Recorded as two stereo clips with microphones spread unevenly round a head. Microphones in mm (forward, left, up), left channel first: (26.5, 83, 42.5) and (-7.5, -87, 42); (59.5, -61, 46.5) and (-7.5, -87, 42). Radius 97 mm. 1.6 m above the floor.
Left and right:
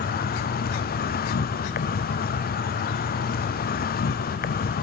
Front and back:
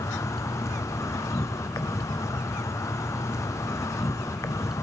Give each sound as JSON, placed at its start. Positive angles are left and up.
{"t": 0.0, "sound": "an insect", "azimuth_deg": 70, "distance_m": 0.9}